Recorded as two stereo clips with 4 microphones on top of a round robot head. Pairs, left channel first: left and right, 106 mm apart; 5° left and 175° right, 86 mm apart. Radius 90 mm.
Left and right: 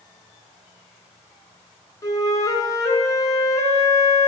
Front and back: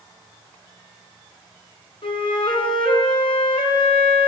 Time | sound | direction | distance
2.0 | a flute | 30° left | 3 m